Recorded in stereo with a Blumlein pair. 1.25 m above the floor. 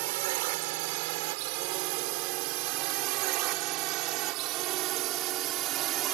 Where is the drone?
50° right; by 6.1 s 35° right.